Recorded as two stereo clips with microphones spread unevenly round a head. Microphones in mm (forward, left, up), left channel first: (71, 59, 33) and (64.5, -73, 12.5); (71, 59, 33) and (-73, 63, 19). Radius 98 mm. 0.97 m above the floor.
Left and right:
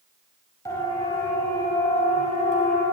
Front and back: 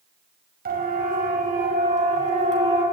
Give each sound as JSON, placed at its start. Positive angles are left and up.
{"t": 0.7, "sound": "a siren", "azimuth_deg": 160, "distance_m": 6.0}